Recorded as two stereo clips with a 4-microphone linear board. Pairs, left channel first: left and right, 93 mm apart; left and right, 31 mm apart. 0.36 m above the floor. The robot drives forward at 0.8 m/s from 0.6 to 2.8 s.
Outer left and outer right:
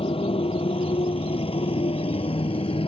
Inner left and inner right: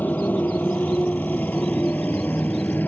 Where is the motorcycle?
80° left.